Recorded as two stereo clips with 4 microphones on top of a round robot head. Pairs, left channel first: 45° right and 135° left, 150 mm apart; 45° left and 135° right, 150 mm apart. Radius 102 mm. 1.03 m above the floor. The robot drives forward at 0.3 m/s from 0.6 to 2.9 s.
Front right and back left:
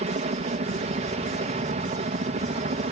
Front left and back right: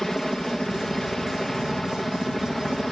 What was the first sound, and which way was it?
A helicopter, 130° left.